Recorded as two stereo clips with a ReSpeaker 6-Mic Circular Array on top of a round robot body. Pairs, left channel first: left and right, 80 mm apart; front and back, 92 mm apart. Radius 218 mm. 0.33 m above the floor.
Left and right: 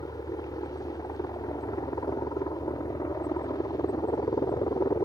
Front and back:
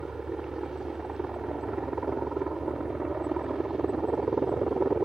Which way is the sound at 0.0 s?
100° left.